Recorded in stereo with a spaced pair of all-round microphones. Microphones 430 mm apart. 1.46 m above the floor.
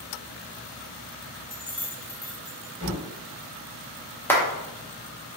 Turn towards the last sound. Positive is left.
turn(degrees=5)  # may be behind; listen again after turning